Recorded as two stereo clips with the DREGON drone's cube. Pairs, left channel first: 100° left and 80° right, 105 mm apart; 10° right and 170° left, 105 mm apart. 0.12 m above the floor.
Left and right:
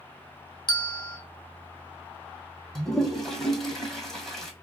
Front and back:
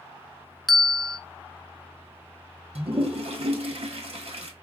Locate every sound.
0.7 s a bell: 80° left, 0.6 m
2.8 s a toilet flushing: 175° right, 1.0 m